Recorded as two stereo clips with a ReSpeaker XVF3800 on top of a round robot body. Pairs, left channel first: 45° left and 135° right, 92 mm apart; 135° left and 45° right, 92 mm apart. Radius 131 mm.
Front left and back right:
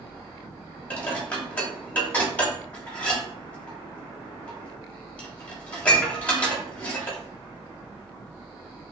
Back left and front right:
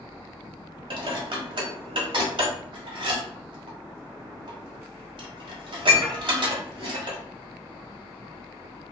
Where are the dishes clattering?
30° right, 1.3 m.